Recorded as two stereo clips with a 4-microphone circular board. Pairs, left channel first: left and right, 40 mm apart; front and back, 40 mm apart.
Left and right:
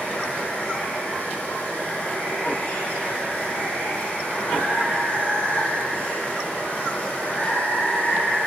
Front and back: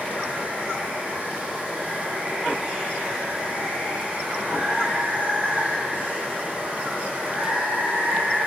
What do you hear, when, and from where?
0.0 s running water: 135° left, 3 m